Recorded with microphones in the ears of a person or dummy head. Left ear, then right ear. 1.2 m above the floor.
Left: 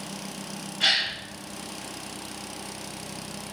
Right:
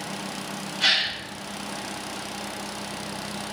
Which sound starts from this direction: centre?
A gasp, at 0.8 s.